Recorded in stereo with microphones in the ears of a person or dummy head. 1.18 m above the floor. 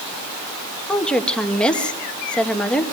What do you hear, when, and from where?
0.9 s a woman speaking: 10° left (ahead or behind), 1.7 m